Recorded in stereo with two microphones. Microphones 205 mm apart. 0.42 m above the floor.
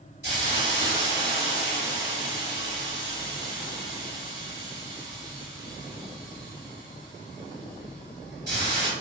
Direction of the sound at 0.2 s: 50° right (ahead or behind).